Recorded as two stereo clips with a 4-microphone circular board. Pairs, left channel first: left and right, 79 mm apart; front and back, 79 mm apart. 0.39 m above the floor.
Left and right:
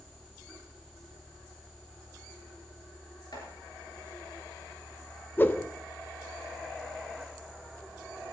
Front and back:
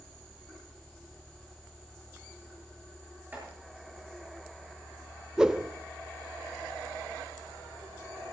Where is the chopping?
115° left, 7 m.